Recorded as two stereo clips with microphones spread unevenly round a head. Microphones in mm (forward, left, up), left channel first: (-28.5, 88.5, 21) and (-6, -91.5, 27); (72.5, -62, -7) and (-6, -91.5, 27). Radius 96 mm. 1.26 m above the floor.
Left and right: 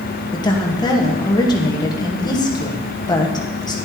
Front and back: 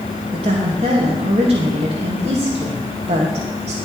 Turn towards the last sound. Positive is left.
turn(degrees=165)